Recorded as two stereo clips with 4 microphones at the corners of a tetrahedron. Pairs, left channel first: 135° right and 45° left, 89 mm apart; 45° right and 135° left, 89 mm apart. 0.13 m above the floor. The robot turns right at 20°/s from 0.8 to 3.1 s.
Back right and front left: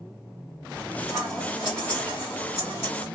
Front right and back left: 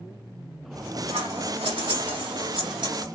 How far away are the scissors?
About 2.0 m.